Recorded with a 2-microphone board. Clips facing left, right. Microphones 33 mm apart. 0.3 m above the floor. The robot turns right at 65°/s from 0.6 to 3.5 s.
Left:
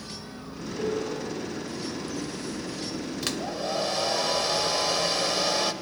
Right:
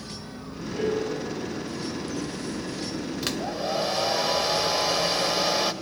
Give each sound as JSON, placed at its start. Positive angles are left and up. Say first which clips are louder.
{"t": 0.7, "sound": "a piano", "louder": "right 3 dB", "azimuth_deg": -35, "distance_m": 6.0}
{"t": 3.2, "sound": "a hair dryer", "louder": "right 2 dB", "side_deg": 0, "distance_m": 0.9}